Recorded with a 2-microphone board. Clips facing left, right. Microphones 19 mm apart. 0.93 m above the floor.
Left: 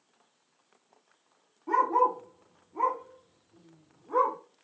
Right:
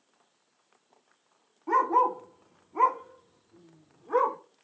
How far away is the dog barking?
About 0.8 m.